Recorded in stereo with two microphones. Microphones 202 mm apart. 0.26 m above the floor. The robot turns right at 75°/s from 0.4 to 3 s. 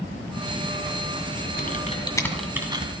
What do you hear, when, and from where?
1.6 s typing on a keyboard: 50° left (ahead or behind), 1.6 m; by 2.9 s 30° right (ahead or behind), 1.6 m